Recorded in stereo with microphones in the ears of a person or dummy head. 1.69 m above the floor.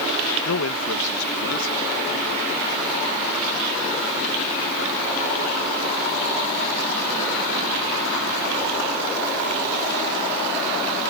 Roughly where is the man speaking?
Left.